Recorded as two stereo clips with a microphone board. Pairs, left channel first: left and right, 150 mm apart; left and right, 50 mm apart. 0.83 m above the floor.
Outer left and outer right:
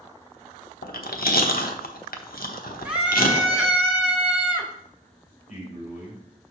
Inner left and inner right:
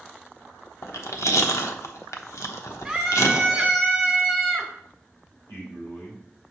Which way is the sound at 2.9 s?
5° right (ahead or behind).